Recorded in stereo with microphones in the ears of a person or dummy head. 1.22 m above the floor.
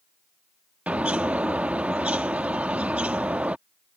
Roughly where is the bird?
Centre.